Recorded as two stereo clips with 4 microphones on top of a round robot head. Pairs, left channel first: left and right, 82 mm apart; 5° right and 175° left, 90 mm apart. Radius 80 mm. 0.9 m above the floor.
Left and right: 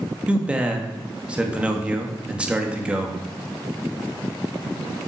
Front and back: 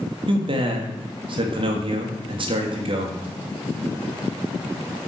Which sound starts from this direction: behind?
A man speaking, at 0.3 s.